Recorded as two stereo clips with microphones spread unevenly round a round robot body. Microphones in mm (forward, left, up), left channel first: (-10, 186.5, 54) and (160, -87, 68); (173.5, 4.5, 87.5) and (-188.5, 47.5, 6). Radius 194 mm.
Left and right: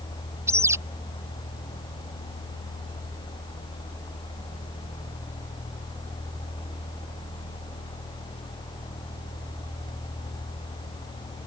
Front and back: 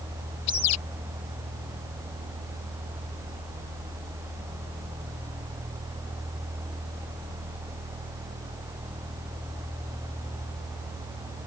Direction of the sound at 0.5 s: 25° left.